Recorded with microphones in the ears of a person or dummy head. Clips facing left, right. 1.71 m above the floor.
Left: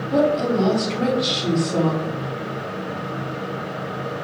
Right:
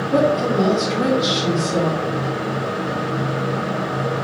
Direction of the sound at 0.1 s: 5° right (ahead or behind).